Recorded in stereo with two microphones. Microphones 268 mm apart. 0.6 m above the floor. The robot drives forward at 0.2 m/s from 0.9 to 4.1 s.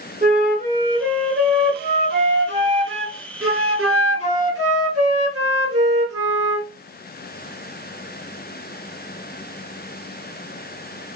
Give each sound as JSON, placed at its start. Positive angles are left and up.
{"t": 0.2, "sound": "a flute", "side_deg": -30, "distance_m": 1.2}